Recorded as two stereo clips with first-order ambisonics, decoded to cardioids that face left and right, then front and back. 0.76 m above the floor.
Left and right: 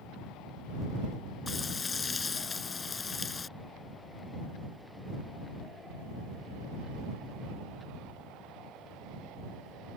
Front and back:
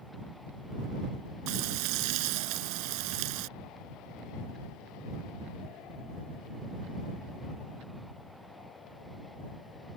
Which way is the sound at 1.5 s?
165° left.